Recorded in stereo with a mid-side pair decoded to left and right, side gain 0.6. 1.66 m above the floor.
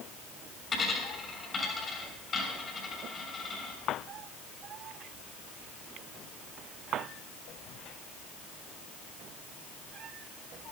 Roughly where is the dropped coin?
Ahead left.